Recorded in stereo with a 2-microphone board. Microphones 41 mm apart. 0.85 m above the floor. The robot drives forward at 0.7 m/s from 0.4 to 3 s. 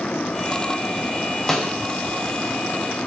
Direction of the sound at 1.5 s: 5° left (ahead or behind).